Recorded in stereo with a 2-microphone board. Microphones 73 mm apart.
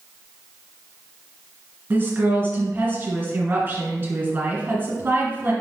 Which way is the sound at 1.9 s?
30° right (ahead or behind).